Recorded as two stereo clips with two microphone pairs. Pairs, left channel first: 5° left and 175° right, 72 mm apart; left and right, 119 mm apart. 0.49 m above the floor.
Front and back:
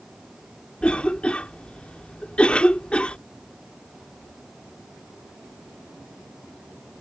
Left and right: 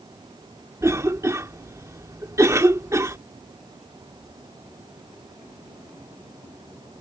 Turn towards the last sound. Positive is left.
turn(degrees=-55)